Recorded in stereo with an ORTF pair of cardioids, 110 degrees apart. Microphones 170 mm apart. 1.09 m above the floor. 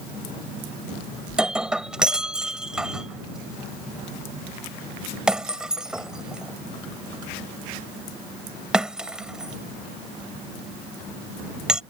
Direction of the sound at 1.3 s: 5° right.